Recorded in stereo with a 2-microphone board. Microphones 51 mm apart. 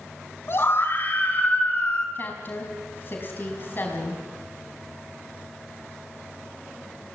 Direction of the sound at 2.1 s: 40° left (ahead or behind).